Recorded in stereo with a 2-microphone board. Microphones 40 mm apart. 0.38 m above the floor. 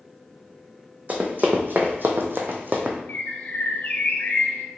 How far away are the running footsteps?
About 1.0 m.